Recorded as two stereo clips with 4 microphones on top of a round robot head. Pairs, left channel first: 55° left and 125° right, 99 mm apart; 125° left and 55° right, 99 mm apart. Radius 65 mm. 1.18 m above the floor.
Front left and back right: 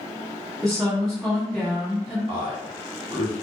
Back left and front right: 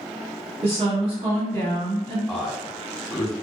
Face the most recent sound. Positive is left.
turn(degrees=-145)